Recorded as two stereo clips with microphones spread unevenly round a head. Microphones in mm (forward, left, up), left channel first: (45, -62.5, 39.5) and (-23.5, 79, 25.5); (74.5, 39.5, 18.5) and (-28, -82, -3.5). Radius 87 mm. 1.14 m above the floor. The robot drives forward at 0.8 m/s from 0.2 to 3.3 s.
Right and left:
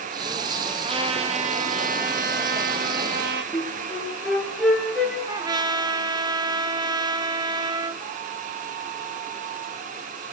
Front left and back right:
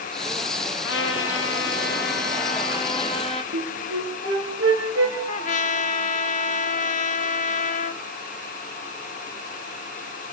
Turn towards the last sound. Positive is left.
turn(degrees=50)